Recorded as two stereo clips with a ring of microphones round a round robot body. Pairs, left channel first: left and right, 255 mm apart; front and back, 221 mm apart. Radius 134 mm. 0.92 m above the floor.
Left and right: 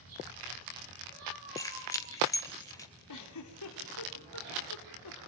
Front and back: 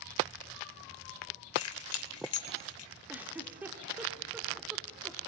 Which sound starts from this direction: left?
A giggle, at 3.1 s.